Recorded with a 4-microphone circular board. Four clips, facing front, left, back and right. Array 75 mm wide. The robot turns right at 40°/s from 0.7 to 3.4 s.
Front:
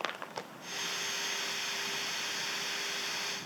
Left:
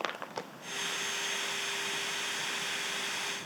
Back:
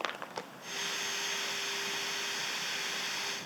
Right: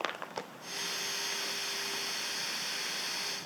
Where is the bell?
No bell in this recording.